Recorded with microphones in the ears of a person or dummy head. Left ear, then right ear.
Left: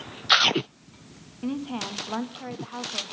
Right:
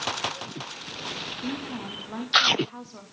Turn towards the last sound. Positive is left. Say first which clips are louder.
# left 1 dB
turn(degrees=25)  # may be behind; listen again after turning